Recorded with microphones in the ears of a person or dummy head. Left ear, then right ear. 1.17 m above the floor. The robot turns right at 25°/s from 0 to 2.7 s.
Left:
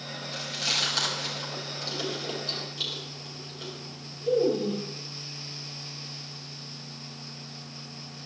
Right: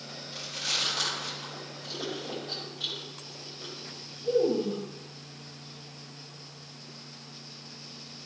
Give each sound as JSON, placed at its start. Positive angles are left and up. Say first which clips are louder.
{"t": 0.3, "sound": "chewing", "louder": "left 3 dB", "side_deg": 15, "distance_m": 6.0}